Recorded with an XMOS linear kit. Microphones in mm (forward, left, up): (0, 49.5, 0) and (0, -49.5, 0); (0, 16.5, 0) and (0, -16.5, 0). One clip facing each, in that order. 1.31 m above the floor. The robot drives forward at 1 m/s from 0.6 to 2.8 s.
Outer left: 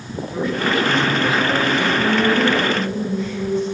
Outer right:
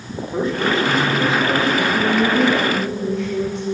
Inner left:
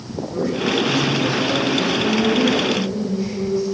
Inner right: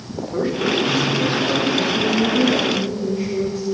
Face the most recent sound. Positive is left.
turn(degrees=-80)